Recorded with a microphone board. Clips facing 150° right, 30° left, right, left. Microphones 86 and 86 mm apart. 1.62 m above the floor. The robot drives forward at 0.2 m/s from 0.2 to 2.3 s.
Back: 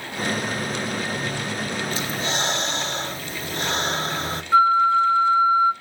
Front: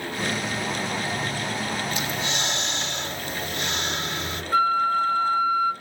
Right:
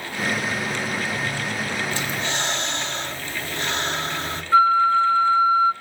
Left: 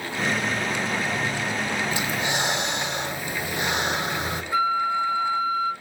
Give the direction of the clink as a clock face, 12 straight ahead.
I don't hear a clink.